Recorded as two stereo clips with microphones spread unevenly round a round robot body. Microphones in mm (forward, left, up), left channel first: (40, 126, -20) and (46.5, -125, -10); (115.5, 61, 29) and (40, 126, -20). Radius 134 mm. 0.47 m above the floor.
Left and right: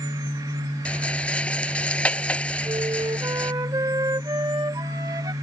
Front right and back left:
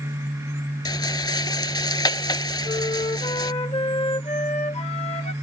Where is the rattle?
5° left.